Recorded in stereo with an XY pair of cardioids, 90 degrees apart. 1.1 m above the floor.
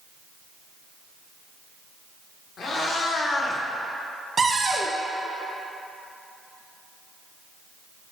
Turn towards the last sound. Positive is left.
turn(degrees=-35)